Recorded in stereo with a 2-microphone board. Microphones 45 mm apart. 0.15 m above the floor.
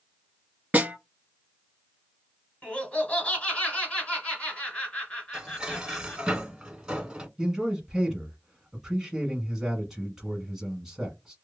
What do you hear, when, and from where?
0.7 s a snare drum: 35° right (ahead or behind), 0.8 m
2.6 s laughter: 30° left (ahead or behind), 1.9 m
5.3 s dishes clattering: 20° right (ahead or behind), 0.8 m
7.4 s a man speaking: 10° right (ahead or behind), 1.1 m